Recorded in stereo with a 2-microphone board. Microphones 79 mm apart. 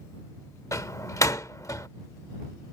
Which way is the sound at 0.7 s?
45° left (ahead or behind).